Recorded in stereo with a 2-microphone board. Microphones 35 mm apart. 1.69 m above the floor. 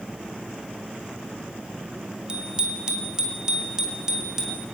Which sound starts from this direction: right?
A bicycle bell, at 2.3 s.